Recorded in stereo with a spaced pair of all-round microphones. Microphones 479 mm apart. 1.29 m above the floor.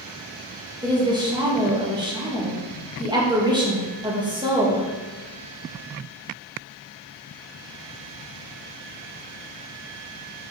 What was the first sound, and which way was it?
A woman speaking, 10° right (ahead or behind).